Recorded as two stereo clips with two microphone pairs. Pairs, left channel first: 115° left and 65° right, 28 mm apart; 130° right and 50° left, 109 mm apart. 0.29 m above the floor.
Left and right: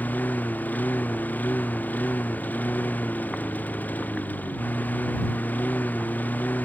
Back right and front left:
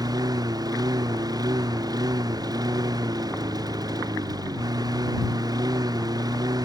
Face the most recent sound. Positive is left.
turn(degrees=105)